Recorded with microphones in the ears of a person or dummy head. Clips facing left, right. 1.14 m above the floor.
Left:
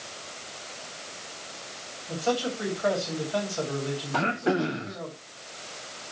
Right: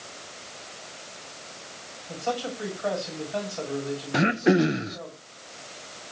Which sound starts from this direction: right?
Throat clearing, at 4.1 s.